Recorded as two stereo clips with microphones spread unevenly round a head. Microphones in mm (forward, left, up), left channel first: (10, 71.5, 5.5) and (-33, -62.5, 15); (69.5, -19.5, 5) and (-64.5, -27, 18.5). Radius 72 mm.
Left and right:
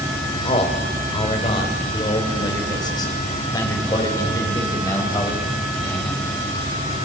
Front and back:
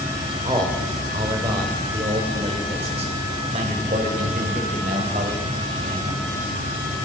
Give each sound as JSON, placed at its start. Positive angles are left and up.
{"t": 0.5, "sound": "a man speaking", "azimuth_deg": 120, "distance_m": 6.0}